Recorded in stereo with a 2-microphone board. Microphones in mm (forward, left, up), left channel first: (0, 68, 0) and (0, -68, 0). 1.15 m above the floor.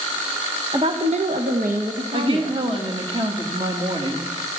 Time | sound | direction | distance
0.7 | a woman speaking | 35° right (ahead or behind) | 1.1 m
2.1 | a woman speaking | 35° right (ahead or behind) | 1.6 m